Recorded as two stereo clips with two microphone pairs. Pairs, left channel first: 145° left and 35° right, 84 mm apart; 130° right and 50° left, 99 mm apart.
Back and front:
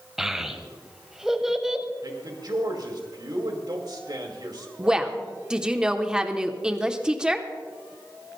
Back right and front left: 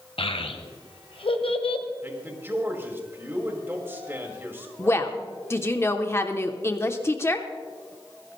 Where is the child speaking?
120° right, 1.4 m.